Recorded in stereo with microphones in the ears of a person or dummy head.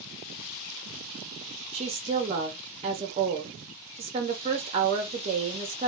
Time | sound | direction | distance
1.7 | a woman speaking | 25° right (ahead or behind) | 0.6 m